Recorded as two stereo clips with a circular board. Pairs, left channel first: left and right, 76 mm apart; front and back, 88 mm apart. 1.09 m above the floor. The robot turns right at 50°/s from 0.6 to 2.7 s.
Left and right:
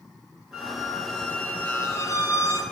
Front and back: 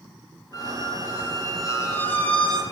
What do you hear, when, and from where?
0.5 s a squeak: 15° right, 1.3 m; by 2.6 s 85° left, 1.3 m